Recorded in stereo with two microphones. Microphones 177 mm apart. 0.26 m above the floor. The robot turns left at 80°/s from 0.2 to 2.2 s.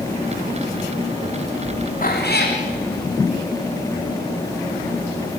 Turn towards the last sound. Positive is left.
turn(degrees=65)  # may be behind; listen again after turning